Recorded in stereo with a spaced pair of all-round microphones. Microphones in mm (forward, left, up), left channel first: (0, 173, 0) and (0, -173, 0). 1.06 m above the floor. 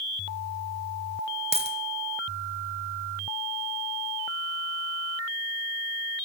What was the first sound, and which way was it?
A dropped coin, 15° right (ahead or behind).